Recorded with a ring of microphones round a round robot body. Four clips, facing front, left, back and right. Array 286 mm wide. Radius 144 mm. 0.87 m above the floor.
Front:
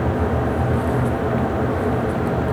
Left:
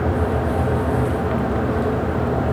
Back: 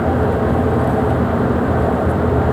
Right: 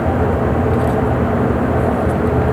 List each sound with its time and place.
Only background noise.